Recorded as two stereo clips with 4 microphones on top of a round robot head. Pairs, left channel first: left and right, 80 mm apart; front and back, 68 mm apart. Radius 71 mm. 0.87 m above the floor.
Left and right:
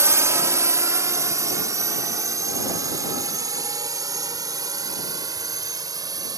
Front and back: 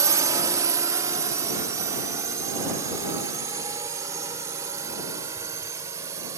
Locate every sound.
0.0 s a drone: 140° right; by 6.4 s 125° right